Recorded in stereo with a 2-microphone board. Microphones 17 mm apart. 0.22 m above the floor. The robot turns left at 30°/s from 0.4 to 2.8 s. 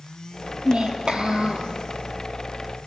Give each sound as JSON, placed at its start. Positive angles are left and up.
{"t": 0.7, "sound": "a child speaking", "azimuth_deg": -80, "distance_m": 3.5}